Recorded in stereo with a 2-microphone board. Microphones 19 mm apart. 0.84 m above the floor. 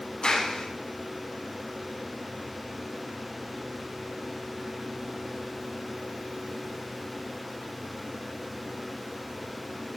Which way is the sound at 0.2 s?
75° left (ahead or behind).